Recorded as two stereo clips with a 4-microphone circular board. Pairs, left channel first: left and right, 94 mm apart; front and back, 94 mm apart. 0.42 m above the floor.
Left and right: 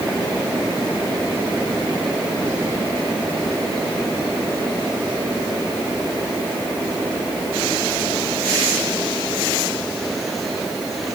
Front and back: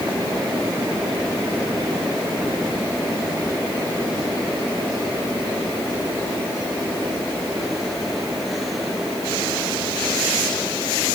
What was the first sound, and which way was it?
Only background noise.